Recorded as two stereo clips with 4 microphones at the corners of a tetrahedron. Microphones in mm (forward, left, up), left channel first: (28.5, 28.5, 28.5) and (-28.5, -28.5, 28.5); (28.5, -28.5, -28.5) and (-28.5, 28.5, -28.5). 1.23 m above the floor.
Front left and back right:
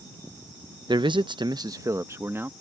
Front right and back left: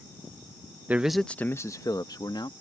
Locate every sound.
0.9 s a man speaking: 155° right; by 2.5 s 70° right